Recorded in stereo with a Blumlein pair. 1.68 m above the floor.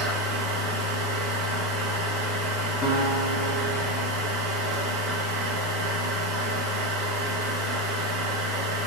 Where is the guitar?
25° left, 0.9 m.